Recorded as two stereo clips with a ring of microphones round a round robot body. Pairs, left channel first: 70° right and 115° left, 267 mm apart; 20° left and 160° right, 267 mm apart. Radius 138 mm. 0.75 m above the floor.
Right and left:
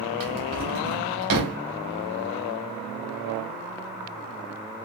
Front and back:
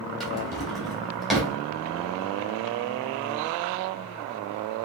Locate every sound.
0.2 s a drawer: 115° left, 2 m